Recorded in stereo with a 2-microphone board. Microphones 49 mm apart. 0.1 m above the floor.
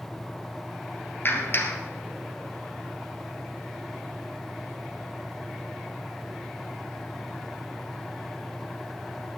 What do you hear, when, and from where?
1.2 s a clap: 45° left (ahead or behind), 1.8 m